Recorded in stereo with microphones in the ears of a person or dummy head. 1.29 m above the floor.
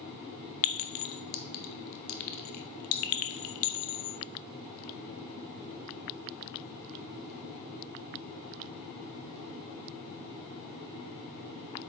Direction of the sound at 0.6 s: 45° left (ahead or behind).